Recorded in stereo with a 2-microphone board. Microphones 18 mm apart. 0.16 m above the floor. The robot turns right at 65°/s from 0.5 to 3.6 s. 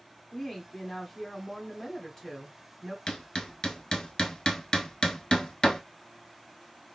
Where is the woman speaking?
5° left (ahead or behind), 1.2 m.